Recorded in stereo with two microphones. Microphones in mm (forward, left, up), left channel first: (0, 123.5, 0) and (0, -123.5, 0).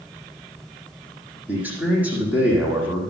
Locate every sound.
1.5 s a man speaking: 5° right (ahead or behind), 5.5 m